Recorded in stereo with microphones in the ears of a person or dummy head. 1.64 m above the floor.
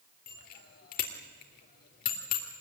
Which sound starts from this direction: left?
A bicycle bell, at 0.3 s.